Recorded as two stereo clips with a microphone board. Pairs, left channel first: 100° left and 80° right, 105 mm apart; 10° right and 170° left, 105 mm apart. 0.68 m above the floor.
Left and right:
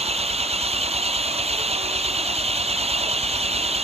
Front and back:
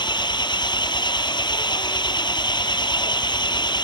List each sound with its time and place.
0.0 s an engine running: 60° right